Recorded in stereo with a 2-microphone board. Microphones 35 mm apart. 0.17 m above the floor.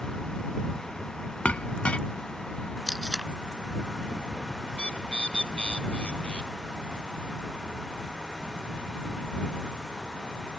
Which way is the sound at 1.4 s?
35° left (ahead or behind).